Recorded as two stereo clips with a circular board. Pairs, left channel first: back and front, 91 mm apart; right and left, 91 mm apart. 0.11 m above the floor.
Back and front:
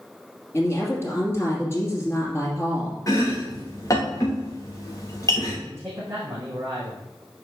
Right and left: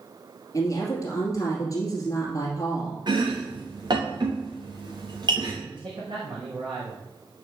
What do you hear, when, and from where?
0.5 s a woman speaking: 130° right, 2 m
3.1 s chopping: 130° left, 3 m
5.7 s a man speaking: 65° left, 4 m